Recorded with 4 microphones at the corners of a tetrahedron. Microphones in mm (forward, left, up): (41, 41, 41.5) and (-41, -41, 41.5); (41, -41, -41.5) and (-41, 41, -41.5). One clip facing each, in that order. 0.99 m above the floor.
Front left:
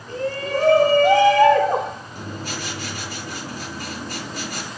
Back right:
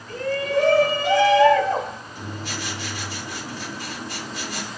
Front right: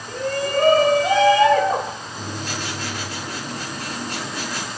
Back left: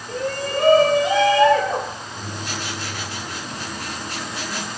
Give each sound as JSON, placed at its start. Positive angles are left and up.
{"t": 0.1, "sound": "a shout", "azimuth_deg": -15, "distance_m": 2.5}
{"t": 2.1, "sound": "writing", "azimuth_deg": 5, "distance_m": 6.0}